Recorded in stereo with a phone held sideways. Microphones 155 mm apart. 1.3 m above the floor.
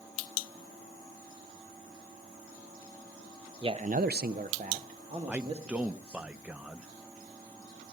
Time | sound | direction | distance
3.6 | a man speaking | 30° right (ahead or behind) | 0.8 m
5.3 | a man speaking | 10° right (ahead or behind) | 0.6 m